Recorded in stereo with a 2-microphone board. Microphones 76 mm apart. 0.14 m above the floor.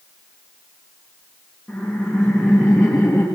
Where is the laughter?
5° right (ahead or behind), 3.5 m; by 3.2 s 10° left (ahead or behind), 2.5 m.